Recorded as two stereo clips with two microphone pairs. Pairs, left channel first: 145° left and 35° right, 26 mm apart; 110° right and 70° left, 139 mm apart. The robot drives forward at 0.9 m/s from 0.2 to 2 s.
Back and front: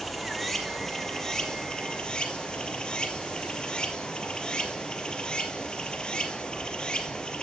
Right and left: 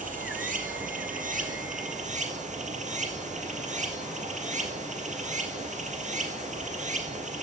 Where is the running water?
60° left, 3 m; by 7.4 s 95° left, 2.5 m.